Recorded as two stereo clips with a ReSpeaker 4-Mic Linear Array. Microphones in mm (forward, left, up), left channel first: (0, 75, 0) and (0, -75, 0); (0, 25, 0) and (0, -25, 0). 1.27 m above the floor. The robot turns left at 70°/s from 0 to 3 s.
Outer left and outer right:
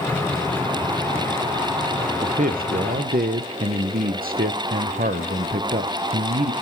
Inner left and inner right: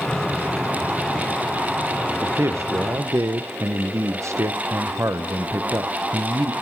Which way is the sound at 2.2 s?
50° right.